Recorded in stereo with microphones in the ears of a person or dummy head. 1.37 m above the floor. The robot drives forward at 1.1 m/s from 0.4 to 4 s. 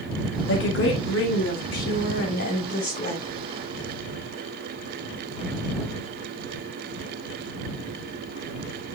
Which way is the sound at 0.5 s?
80° left.